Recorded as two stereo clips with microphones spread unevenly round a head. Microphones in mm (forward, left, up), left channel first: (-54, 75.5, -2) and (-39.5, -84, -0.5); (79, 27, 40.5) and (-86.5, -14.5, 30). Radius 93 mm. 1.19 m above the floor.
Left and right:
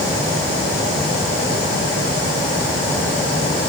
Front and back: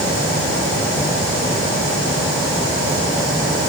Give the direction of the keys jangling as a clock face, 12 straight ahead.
I don't hear keys jangling.